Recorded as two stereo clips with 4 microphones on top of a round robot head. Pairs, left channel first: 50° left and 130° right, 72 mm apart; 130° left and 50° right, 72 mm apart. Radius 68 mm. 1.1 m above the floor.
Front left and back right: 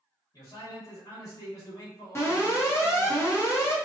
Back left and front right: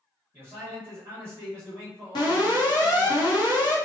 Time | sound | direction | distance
0.3 | a man speaking | 10° left | 1.1 m
2.1 | an alarm | 105° left | 0.9 m